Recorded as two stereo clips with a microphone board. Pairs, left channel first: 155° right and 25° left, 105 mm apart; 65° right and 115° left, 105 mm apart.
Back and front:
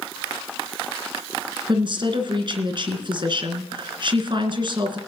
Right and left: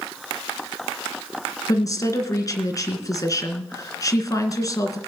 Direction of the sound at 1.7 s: 15° right.